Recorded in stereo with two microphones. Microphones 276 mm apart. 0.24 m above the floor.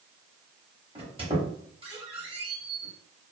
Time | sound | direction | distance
0.9 | a squeak | 20° right (ahead or behind) | 1.0 m